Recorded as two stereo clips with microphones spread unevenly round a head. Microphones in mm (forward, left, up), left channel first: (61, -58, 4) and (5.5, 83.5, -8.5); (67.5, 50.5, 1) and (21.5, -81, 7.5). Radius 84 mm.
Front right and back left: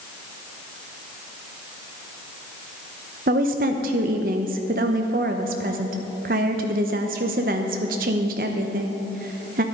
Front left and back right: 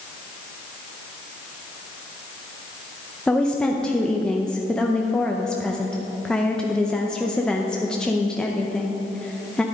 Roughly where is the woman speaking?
Behind left.